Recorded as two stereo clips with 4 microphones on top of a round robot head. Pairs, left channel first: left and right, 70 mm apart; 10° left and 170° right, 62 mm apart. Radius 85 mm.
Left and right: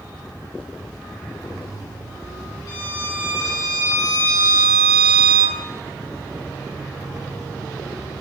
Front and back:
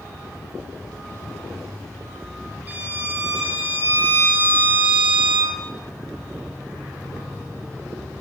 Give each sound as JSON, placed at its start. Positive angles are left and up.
{"t": 2.7, "sound": "a violin", "azimuth_deg": 125, "distance_m": 4.0}